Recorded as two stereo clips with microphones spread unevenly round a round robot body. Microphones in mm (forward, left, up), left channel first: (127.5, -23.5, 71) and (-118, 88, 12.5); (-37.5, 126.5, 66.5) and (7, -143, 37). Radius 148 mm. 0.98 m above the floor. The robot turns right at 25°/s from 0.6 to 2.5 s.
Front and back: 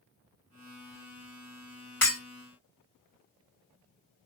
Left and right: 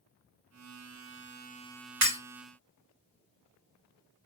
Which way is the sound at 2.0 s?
110° right.